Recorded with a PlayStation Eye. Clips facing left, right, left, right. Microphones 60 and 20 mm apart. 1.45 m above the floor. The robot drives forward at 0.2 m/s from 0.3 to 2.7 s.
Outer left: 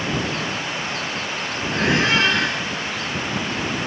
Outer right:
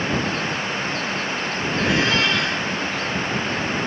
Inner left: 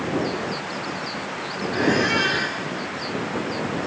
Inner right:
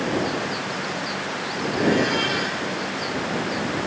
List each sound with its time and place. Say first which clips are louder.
1.7 s a squeak: outer left 2 dB, inner left 1 dB; 75° left (ahead or behind), 7 m